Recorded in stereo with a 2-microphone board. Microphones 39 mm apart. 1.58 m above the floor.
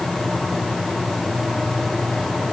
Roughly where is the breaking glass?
I don't hear breaking glass.